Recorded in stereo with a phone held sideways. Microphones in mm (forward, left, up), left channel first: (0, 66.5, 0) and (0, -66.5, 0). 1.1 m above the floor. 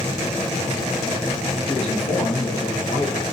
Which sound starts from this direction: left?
A man speaking, at 1.7 s.